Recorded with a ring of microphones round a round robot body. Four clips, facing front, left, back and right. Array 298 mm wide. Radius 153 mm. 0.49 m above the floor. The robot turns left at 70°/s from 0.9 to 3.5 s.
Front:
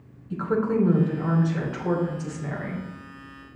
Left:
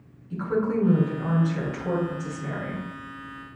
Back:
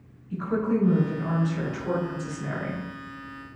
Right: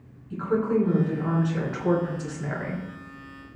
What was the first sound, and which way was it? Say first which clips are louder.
A woman speaking: right 1 dB, front 2 dB; 5° left.